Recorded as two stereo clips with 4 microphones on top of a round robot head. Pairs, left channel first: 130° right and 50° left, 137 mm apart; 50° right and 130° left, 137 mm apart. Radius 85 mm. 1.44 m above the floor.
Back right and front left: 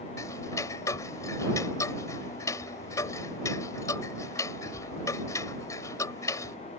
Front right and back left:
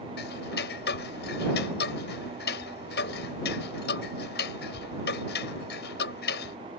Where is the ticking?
60° right.